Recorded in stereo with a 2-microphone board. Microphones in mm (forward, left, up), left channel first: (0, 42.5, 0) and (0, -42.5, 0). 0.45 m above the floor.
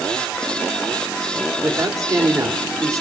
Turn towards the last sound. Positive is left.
turn(degrees=-40)  # may be behind; listen again after turning